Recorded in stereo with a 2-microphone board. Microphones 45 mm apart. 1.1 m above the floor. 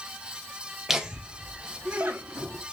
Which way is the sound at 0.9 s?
10° right (ahead or behind).